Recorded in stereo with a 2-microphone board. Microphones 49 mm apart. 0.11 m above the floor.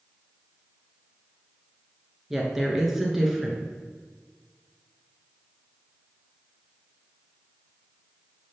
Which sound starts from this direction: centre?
A woman speaking, at 2.3 s.